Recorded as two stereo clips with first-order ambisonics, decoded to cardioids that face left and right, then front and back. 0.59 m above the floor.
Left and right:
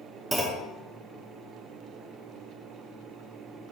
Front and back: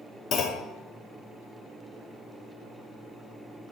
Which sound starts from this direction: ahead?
A clunk, at 0.3 s.